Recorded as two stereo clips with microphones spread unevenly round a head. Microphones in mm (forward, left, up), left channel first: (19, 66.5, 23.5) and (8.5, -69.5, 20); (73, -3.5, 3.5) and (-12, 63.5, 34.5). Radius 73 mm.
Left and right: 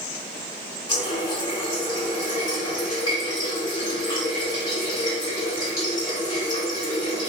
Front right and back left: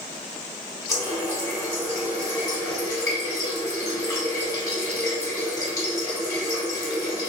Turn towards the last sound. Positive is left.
turn(degrees=20)